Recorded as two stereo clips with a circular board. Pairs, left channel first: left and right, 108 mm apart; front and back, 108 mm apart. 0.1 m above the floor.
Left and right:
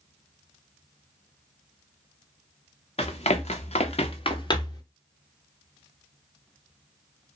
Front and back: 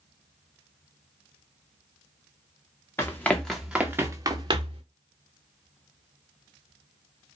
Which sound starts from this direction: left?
Running footsteps, at 3.0 s.